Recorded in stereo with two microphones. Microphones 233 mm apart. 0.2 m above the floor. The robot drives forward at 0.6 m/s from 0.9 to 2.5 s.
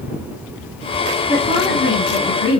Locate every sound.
1.3 s a woman speaking: 25° left (ahead or behind), 2 m; by 2.6 s 20° left (ahead or behind), 2.5 m